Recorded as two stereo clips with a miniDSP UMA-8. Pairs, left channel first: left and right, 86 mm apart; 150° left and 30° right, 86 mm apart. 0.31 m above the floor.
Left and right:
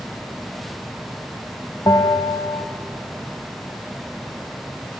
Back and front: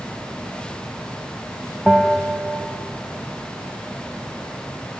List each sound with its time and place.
1.9 s a bell: 60° left, 0.6 m